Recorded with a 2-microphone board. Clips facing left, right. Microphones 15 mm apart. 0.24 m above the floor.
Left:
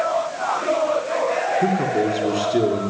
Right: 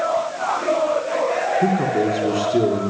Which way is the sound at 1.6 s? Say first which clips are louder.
Right 1 dB; 5° left (ahead or behind).